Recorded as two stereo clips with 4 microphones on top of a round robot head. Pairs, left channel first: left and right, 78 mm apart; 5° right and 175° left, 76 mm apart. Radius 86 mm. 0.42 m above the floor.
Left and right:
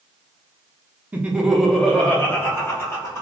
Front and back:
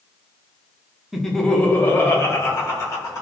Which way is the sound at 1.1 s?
105° right.